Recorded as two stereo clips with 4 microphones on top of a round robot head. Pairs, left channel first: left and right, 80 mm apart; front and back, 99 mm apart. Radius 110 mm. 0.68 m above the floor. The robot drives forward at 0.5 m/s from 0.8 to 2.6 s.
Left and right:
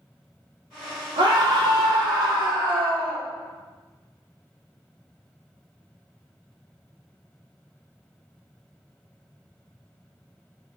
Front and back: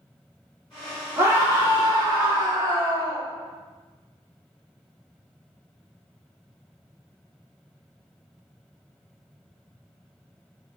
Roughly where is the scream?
Right.